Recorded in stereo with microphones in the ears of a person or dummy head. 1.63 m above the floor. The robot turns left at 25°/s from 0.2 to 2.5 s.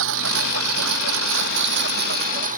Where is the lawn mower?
70° right; by 2.6 s 130° right.